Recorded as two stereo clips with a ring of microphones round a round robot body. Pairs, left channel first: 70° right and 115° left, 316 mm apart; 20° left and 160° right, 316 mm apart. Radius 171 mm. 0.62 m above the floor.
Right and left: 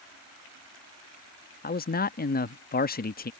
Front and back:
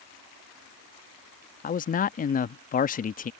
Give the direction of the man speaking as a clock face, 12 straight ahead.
1 o'clock.